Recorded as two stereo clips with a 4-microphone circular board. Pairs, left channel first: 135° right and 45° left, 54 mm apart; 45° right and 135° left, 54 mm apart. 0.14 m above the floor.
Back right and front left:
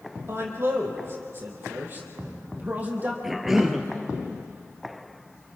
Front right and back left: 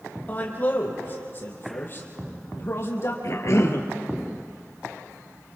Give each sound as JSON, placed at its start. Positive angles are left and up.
{"t": 0.3, "sound": "a man speaking", "azimuth_deg": 10, "distance_m": 4.5}
{"t": 3.2, "sound": "a cough", "azimuth_deg": -40, "distance_m": 2.0}